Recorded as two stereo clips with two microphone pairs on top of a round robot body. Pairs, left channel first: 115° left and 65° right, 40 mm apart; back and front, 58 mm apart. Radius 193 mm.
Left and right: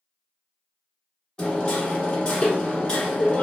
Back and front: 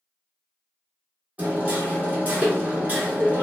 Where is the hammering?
50° left, 1.9 m.